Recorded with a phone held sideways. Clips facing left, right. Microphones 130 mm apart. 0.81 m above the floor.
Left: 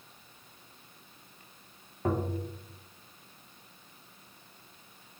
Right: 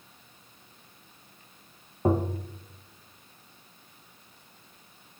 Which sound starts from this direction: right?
Tapping, at 2.0 s.